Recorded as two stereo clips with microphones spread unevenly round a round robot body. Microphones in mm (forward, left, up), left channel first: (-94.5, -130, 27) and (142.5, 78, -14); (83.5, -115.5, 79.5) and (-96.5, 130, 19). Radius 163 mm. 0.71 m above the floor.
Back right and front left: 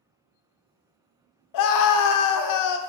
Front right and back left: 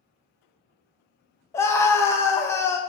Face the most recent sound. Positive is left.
turn(degrees=-145)